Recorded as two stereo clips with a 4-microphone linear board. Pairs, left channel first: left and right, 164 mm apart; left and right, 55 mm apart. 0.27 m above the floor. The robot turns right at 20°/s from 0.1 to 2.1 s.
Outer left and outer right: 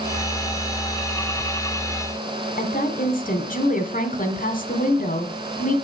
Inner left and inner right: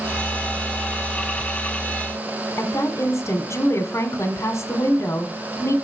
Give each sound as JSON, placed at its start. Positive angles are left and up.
{"t": 2.6, "sound": "a woman speaking", "side_deg": 60, "distance_m": 1.8}